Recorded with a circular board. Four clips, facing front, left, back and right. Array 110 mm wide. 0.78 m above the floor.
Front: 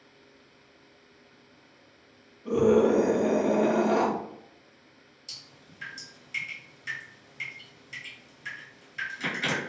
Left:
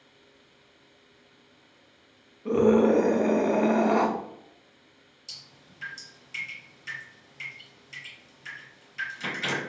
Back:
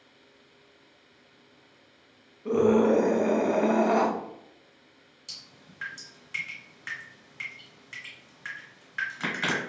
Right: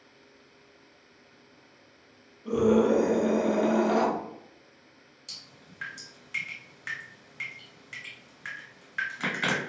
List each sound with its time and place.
2.5 s a scream: 120° left, 0.6 m
5.3 s dripping: 135° right, 1.4 m